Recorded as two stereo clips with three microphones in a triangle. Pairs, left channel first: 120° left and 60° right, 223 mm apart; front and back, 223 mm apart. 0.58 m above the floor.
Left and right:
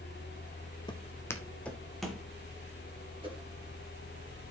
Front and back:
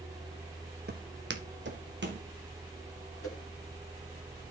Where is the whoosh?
10° left, 2.5 m.